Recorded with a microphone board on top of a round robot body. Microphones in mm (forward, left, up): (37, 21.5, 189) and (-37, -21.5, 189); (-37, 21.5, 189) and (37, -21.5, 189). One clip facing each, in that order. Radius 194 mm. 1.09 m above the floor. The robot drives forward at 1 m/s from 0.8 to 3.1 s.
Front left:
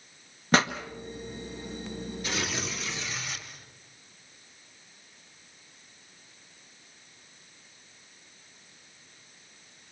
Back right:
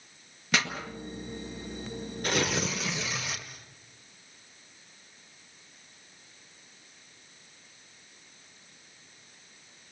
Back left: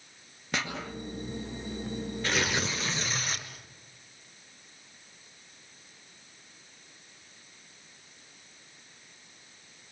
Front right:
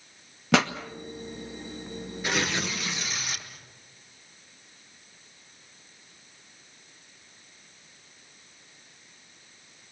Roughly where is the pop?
Ahead right.